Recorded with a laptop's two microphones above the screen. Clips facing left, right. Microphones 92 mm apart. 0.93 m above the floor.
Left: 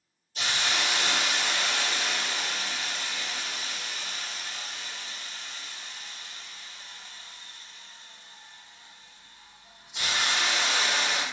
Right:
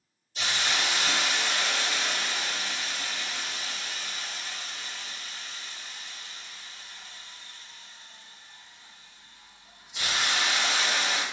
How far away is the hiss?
About 1.0 m.